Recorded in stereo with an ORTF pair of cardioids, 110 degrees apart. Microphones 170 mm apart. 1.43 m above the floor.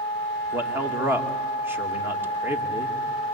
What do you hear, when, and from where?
0.5 s a man speaking: 15° right, 2.5 m